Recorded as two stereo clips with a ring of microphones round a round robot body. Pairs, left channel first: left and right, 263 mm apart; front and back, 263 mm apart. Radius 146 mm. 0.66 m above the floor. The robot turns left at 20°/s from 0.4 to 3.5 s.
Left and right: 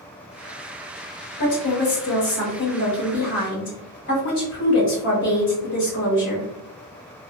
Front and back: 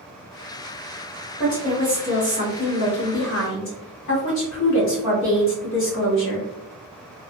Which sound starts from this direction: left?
A woman speaking, at 1.4 s.